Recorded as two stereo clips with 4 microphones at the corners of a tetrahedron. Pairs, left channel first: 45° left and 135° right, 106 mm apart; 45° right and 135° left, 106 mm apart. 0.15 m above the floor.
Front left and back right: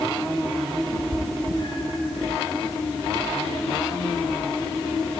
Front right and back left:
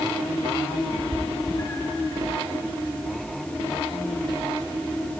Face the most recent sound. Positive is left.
turn(degrees=-5)